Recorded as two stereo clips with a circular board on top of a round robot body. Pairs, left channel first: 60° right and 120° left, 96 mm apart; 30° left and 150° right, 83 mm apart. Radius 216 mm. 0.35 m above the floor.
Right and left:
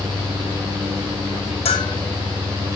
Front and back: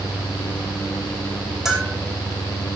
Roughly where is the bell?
Ahead right.